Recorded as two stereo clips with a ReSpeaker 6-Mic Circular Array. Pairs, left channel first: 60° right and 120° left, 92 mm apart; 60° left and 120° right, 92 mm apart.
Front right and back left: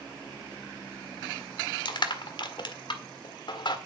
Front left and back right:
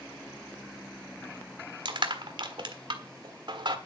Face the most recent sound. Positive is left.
turn(degrees=-90)